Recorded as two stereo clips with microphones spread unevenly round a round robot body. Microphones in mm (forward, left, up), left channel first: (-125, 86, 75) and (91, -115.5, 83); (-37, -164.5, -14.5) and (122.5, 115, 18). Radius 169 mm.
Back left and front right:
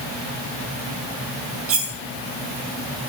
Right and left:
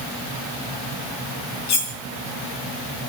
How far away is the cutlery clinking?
About 2.5 m.